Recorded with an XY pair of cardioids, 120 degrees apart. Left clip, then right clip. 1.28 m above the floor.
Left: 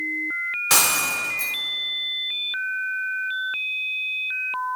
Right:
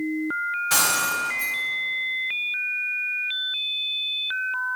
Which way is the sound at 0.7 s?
65° left.